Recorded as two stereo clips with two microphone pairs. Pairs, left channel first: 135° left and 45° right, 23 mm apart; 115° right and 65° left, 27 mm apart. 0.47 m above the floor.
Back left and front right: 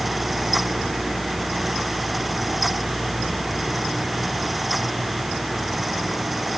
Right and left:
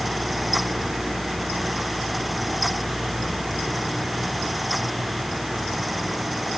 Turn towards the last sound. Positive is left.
No sound to turn to.